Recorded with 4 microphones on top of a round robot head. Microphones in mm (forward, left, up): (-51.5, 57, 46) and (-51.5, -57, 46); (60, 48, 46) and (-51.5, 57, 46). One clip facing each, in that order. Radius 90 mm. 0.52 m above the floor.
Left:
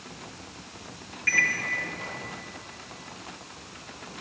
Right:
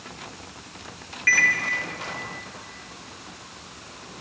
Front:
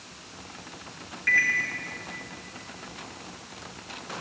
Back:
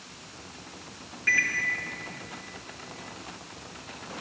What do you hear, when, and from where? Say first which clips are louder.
1.3 s a microwave: right 5 dB, front 3 dB; 105° right, 1.8 m